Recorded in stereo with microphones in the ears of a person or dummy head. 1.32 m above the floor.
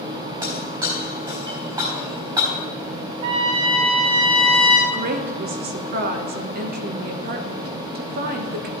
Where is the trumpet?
30° right (ahead or behind), 0.8 m.